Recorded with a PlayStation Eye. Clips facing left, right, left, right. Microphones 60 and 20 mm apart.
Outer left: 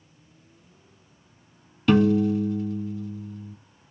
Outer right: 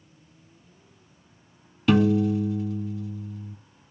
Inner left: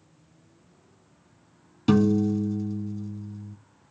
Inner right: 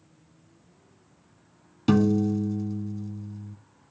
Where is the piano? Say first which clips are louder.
Outer left 1 dB, inner left 1 dB; centre (ahead or behind), 0.7 m.